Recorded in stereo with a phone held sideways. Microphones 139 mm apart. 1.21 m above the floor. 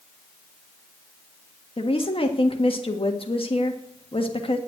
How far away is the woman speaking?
About 1.5 m.